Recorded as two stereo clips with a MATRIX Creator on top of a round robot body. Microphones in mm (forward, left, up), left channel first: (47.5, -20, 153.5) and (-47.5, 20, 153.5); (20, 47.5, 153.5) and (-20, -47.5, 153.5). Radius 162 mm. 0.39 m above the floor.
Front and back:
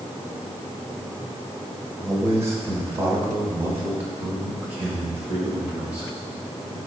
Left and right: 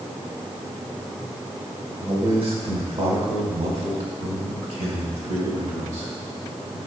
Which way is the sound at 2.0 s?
140° right.